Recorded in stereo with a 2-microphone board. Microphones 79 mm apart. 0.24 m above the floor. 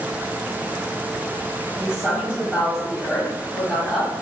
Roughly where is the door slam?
No door slam in this recording.